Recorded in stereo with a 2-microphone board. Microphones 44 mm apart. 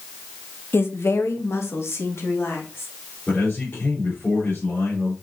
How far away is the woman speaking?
About 1.1 m.